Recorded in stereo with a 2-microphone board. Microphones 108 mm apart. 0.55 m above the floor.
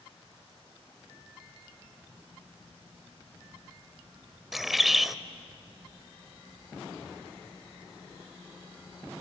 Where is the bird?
Centre (ahead or behind), 0.6 m.